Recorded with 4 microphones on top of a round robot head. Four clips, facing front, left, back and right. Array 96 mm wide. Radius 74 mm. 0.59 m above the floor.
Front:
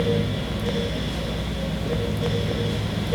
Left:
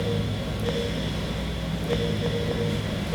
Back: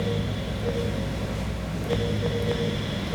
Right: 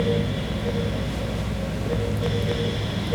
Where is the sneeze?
No sneeze in this recording.